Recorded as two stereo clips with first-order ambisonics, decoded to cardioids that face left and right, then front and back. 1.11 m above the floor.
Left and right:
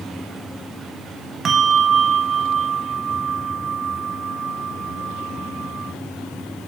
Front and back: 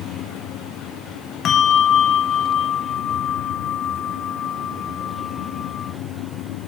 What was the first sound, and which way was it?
A bell, 40° right.